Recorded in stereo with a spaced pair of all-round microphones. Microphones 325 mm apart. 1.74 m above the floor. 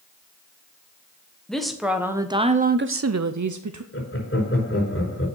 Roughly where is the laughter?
Left.